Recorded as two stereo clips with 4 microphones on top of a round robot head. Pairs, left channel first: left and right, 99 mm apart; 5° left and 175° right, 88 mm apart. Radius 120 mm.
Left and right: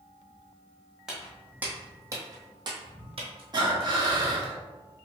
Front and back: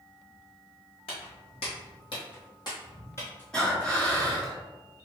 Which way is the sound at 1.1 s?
5° right.